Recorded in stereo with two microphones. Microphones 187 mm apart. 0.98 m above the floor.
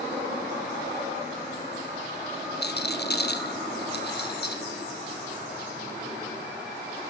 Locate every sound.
2.6 s a rattle: 60° left (ahead or behind), 1.8 m